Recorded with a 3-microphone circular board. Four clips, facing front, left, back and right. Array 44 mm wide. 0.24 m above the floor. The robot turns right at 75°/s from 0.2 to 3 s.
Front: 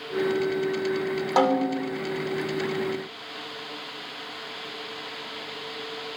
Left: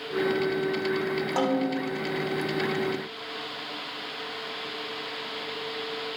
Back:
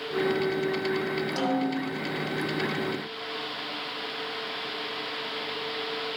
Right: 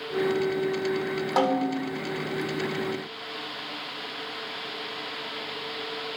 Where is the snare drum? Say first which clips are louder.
Right 3 dB, front 8 dB; 20° right, 2 m; by 1.9 s 25° left, 2 m.